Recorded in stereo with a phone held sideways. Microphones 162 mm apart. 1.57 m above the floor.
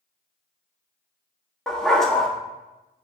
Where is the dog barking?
5° left (ahead or behind), 1.2 m.